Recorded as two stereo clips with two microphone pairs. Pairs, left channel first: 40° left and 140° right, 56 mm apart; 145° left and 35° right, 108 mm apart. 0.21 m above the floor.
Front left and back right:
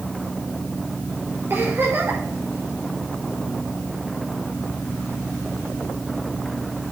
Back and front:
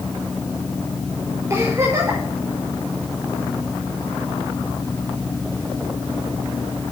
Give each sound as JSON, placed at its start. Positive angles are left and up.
{"t": 1.5, "sound": "a giggle", "azimuth_deg": -95, "distance_m": 6.5}